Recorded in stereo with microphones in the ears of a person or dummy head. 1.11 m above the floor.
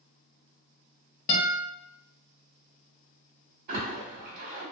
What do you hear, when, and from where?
1.3 s a guitar: 40° left (ahead or behind), 0.8 m
3.7 s a splash: 55° right (ahead or behind), 1.4 m